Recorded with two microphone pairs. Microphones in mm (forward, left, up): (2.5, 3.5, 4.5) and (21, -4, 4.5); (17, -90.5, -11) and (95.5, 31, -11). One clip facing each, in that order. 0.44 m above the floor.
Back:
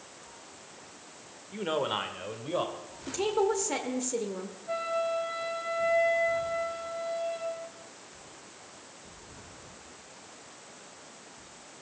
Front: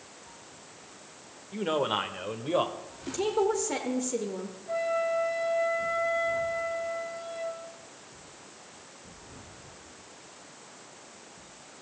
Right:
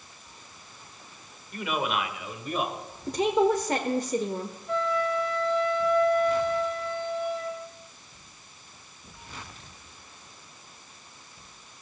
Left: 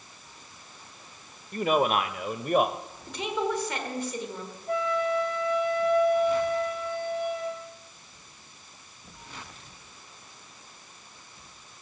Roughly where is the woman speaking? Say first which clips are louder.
Front 1 dB, right 7 dB; behind right.